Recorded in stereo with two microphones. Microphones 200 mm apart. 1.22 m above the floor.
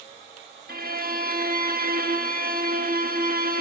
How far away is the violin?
About 1.1 m.